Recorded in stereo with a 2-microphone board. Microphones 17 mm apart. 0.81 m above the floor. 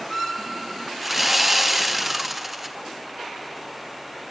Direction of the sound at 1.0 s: 20° right (ahead or behind).